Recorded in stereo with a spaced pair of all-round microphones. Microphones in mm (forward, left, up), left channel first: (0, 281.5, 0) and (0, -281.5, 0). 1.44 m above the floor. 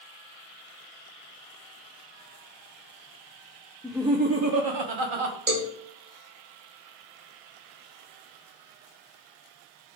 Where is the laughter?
5° left (ahead or behind), 0.5 m; by 5.4 s 65° right (ahead or behind), 0.8 m.